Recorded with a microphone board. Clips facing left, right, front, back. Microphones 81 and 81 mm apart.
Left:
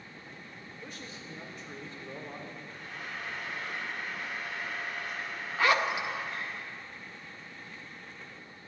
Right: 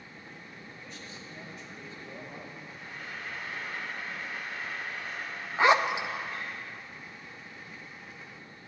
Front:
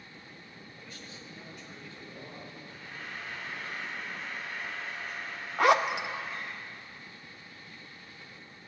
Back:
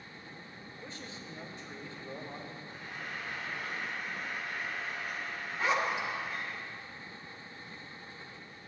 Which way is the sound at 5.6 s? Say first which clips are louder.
Right 4 dB, front 7 dB; 20° right.